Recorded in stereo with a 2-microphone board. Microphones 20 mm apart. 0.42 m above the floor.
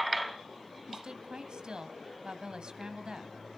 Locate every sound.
0.9 s a woman speaking: 55° right (ahead or behind), 2 m